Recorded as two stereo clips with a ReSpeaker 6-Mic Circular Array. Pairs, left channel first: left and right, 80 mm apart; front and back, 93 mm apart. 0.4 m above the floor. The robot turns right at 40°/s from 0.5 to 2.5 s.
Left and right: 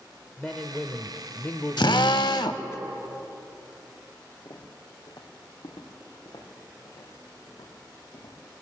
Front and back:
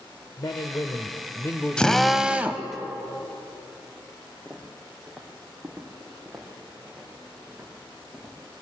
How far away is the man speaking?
About 1.1 m.